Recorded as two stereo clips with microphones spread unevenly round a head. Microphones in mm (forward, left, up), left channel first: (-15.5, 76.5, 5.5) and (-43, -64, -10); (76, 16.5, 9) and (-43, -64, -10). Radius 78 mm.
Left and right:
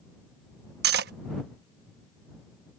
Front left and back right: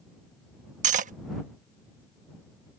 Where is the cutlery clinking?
110° right.